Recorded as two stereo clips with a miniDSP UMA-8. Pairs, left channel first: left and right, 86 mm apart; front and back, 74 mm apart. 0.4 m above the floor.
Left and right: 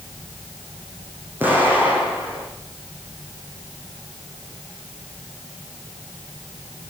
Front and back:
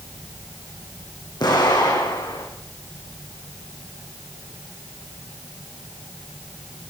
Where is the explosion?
20° right, 9 m.